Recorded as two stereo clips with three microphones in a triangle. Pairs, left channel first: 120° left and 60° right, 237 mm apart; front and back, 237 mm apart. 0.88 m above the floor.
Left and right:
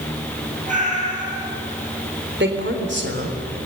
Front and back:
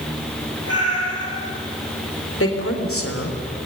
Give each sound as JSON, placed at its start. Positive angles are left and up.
{"t": 0.7, "sound": "a cat meowing", "azimuth_deg": 0, "distance_m": 8.5}
{"t": 2.4, "sound": "a woman speaking", "azimuth_deg": -20, "distance_m": 3.5}